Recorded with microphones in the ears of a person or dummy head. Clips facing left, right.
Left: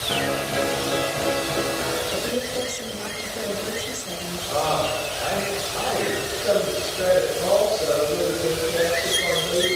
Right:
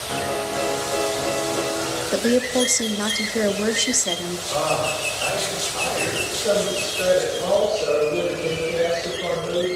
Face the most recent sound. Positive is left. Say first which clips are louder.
# right 1 dB
turn(degrees=25)  # may be behind; listen again after turning